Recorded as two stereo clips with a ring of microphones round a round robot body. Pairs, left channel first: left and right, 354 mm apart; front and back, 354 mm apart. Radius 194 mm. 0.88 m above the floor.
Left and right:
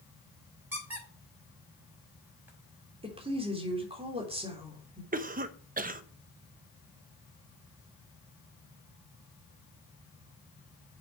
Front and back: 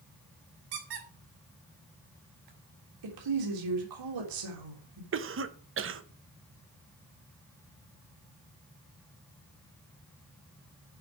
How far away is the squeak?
About 5 m.